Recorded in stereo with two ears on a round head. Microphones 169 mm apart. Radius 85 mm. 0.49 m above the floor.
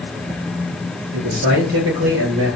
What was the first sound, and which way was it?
A man speaking, 65° right (ahead or behind).